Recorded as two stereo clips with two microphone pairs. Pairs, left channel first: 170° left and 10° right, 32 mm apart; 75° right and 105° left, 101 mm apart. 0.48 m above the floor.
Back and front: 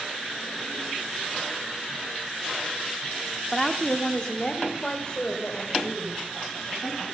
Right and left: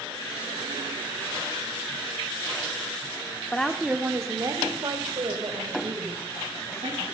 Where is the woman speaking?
135° right, 1.0 m; by 7.0 s 105° left, 3.5 m.